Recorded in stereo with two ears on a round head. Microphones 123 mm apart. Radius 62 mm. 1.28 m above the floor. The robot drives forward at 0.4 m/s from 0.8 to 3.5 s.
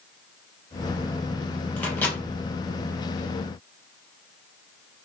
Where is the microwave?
10° left (ahead or behind), 1.0 m; by 2.2 s 15° left (ahead or behind), 0.8 m.